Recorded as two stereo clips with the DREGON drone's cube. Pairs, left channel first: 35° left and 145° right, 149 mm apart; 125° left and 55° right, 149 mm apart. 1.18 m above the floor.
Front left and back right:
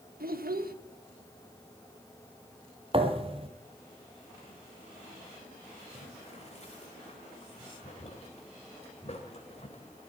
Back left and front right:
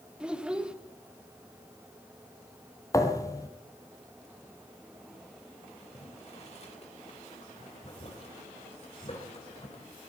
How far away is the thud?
About 1.6 m.